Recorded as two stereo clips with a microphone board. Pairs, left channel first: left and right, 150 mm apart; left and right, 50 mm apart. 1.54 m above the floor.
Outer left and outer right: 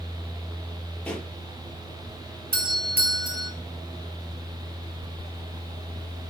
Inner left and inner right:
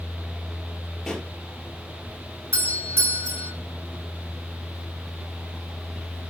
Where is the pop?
10° left (ahead or behind), 5.5 m.